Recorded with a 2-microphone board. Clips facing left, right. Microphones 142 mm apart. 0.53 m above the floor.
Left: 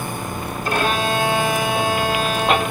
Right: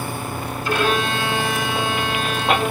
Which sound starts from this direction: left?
A violin, at 0.7 s.